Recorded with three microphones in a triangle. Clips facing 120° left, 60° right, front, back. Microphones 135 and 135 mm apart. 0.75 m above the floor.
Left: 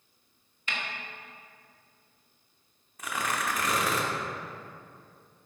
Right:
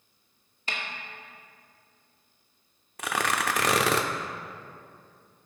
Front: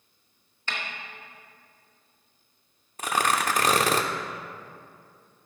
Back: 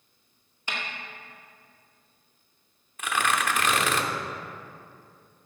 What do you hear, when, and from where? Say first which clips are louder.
0.7 s a snare drum: right 1 dB, even; 105° right, 1.9 m
3.0 s tearing paper: right 4 dB, front 2 dB; 55° right, 0.7 m